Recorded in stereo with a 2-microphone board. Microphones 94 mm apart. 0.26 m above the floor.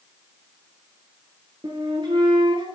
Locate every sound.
1.6 s a flute: 55° right (ahead or behind), 1.6 m